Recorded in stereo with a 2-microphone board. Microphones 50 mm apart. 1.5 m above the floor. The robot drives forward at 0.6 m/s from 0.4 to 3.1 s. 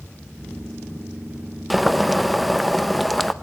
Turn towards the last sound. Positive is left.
turn(degrees=0)  # may be behind; listen again after turning